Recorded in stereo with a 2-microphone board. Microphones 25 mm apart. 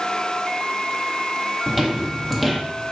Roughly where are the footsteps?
Centre.